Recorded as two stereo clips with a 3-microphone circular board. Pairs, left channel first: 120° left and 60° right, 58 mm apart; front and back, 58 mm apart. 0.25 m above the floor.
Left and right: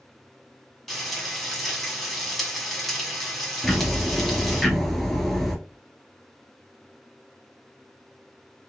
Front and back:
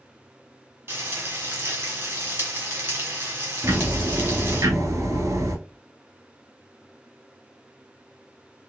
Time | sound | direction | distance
0.9 | frying | 155° right | 1.3 m
3.6 | ticking | 155° right | 0.9 m